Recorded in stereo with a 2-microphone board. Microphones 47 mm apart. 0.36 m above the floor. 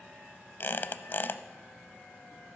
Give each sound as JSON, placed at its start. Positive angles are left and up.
{"t": 0.6, "sound": "a squeak", "side_deg": 50, "distance_m": 0.5}